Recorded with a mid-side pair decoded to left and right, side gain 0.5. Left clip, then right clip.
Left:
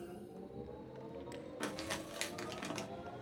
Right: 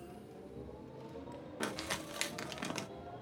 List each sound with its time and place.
0.0 s a machine running: 10° left, 1.1 m
1.6 s crumpling: 25° right, 0.6 m